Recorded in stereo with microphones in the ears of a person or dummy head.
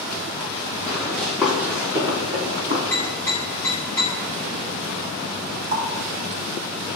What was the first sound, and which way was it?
Running footsteps, 15° left (ahead or behind).